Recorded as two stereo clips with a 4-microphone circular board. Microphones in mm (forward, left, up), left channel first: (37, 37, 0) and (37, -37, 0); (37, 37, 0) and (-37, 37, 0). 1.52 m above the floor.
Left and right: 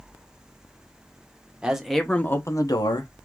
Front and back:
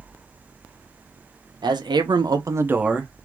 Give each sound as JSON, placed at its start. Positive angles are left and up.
{"t": 1.6, "sound": "a man speaking", "azimuth_deg": -170, "distance_m": 1.3}